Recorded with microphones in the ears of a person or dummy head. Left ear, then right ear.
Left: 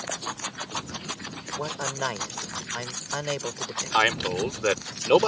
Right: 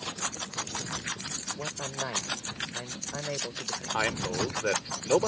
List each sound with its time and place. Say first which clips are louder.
1.5 s a man speaking: left 5 dB; 85° left
3.9 s a man speaking: left 8 dB; 75° left (ahead or behind)